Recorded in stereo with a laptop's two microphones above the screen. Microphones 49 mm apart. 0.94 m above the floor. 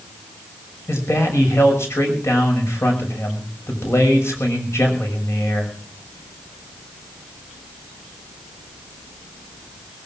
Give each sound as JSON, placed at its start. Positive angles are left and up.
{"t": 0.9, "sound": "a man speaking", "side_deg": 70, "distance_m": 6.0}